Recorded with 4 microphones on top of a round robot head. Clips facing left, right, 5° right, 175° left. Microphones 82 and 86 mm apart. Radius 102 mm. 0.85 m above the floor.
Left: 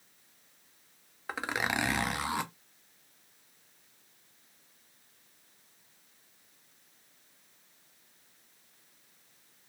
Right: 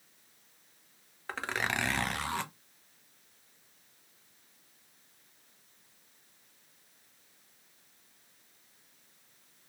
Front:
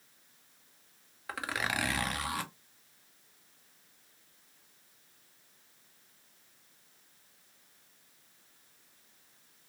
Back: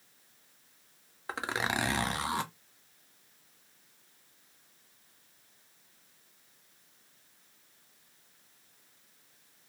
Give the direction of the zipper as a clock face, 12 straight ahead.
7 o'clock.